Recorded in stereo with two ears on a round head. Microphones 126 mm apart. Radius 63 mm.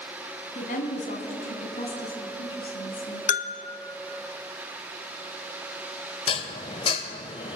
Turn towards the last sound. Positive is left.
turn(degrees=40)  # may be behind; listen again after turning